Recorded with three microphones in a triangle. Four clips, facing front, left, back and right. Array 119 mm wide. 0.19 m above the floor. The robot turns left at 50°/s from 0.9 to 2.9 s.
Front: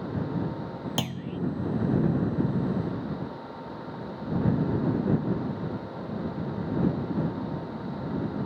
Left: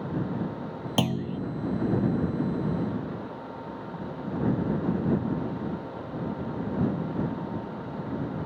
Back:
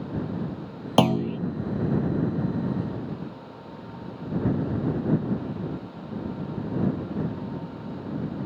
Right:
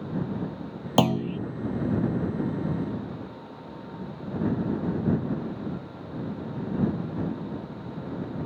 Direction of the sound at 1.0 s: 145° right.